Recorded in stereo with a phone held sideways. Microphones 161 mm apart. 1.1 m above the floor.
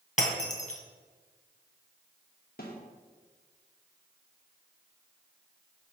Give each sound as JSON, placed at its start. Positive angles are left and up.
{"t": 0.2, "sound": "breaking glass", "side_deg": 50, "distance_m": 2.0}
{"t": 2.6, "sound": "a snare drum", "side_deg": 70, "distance_m": 2.5}